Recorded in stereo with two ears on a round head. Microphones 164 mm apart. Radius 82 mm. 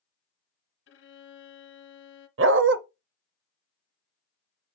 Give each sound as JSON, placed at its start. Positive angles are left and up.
{"t": 0.9, "sound": "a violin", "side_deg": 70, "distance_m": 1.1}
{"t": 2.4, "sound": "a dog barking", "side_deg": -75, "distance_m": 0.7}